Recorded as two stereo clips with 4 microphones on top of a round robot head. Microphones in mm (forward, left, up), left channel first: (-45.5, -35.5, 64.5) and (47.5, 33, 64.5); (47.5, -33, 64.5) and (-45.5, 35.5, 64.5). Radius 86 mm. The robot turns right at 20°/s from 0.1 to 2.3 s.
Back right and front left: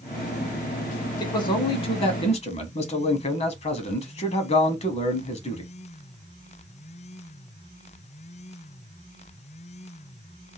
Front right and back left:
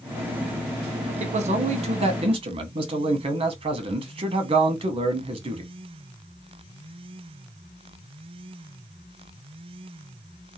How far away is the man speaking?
About 1.1 m.